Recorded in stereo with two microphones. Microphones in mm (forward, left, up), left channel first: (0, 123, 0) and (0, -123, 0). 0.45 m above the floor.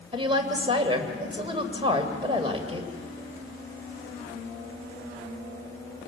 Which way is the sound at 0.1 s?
20° right (ahead or behind).